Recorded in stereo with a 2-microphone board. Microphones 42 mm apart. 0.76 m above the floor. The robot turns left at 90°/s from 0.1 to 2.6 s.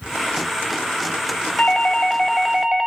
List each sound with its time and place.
1.6 s a doorbell: 70° left, 1.0 m; by 2.9 s 20° right, 1.0 m